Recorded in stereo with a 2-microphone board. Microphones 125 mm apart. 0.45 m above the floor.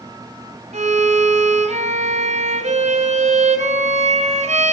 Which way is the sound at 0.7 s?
70° right (ahead or behind).